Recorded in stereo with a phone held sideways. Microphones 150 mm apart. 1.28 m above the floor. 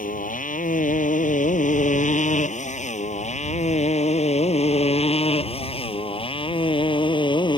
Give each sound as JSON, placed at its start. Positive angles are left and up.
{"t": 0.0, "sound": "a motorcycle", "side_deg": 65}